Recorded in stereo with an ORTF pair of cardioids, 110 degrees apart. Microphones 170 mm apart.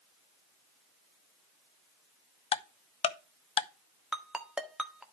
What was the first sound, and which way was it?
Ticking, 35° left.